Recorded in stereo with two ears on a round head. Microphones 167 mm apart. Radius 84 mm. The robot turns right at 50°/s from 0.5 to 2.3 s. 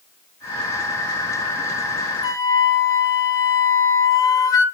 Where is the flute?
25° left (ahead or behind), 2 m; by 4.7 s 20° left (ahead or behind), 2 m.